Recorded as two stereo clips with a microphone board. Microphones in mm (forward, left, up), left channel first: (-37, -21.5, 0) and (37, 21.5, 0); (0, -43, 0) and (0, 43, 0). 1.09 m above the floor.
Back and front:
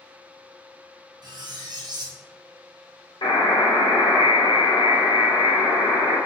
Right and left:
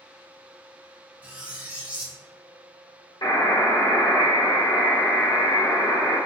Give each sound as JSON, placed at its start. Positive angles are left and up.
{"t": 1.2, "sound": "cutlery clinking", "azimuth_deg": 20, "distance_m": 0.5}
{"t": 3.2, "sound": "a buzzer", "azimuth_deg": -125, "distance_m": 1.1}